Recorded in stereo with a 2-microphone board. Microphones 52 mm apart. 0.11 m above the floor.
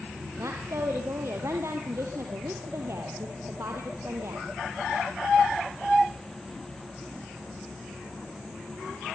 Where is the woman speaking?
65° right (ahead or behind), 2.5 m.